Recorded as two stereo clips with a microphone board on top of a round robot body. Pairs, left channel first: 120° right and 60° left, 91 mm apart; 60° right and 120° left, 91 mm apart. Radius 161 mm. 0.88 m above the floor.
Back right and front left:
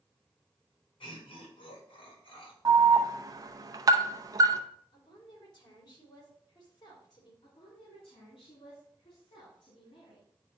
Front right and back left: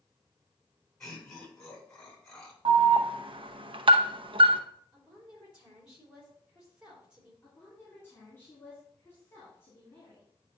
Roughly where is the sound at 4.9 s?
Behind.